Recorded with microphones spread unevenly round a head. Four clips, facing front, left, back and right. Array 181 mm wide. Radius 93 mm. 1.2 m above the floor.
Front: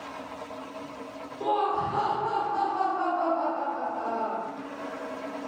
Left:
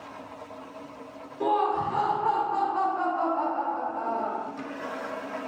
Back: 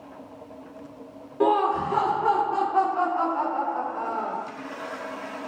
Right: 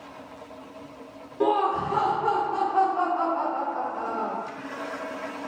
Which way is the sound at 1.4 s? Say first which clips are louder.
Right 2 dB, back 5 dB; 155° right.